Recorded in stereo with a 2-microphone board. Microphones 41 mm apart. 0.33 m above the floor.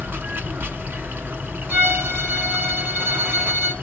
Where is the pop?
No pop in this recording.